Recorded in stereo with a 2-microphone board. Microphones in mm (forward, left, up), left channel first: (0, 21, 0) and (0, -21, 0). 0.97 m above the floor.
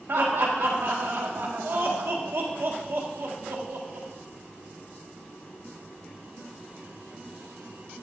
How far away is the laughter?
About 1.7 m.